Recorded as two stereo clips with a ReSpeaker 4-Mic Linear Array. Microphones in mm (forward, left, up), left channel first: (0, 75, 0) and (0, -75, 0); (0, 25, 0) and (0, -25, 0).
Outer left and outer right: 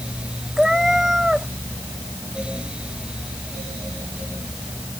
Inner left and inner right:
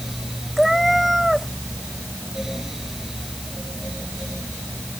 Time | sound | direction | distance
0.6 | a cat meowing | 5° right (ahead or behind) | ?